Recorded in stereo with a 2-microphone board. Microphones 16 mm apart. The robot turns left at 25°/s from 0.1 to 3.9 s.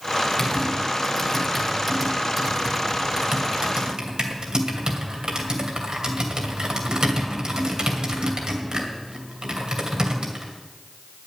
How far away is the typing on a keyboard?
About 2.5 m.